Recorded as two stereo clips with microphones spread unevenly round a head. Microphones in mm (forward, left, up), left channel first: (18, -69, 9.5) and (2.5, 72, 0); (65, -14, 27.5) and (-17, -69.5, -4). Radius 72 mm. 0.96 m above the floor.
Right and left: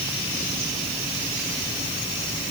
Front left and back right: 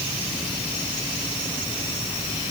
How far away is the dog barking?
No dog barking in this recording.